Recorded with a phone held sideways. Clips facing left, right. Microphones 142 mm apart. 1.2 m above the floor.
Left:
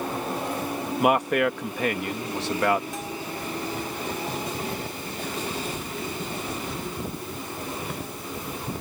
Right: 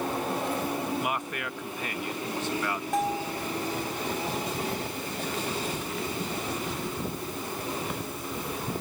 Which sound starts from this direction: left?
A man speaking, at 1.0 s.